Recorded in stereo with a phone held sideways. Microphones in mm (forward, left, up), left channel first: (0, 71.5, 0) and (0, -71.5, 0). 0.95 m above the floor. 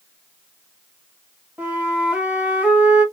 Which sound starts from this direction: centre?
A flute, at 1.6 s.